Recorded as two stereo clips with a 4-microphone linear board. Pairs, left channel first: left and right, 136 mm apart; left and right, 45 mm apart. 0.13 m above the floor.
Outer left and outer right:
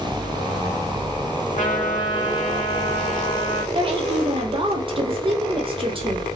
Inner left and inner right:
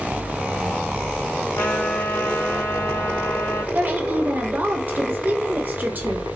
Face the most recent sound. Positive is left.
turn(degrees=-40)  # may be behind; listen again after turning